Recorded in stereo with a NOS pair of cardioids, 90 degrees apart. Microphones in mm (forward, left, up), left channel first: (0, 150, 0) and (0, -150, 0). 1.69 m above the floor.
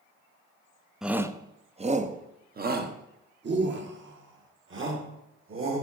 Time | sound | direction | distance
1.0 | a shout | straight ahead | 0.7 m